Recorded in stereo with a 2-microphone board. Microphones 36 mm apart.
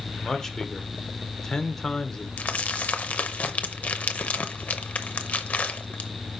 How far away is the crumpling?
About 0.7 m.